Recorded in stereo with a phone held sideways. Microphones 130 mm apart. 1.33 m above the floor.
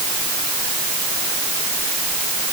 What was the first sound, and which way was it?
Only background noise.